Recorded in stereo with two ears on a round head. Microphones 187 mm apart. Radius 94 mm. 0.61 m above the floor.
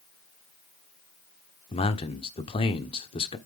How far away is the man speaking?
About 1.2 m.